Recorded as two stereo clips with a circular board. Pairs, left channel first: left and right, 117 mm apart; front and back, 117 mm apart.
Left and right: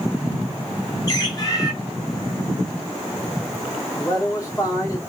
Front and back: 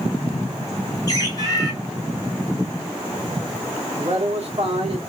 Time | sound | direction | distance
1.1 | a bird | 45° left | 1.6 m
3.9 | a man speaking | 150° left | 1.8 m